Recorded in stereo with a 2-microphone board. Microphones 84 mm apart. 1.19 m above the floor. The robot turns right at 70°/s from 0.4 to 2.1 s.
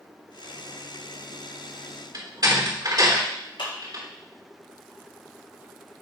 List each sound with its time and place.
2.1 s a door slam: 55° right (ahead or behind), 3 m
3.6 s a clap: 80° left, 3.5 m